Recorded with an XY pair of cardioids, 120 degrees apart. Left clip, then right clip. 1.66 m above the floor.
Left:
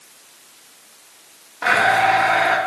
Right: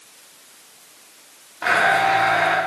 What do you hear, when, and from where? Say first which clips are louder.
1.6 s a blender: left 2 dB; 10° left, 1.3 m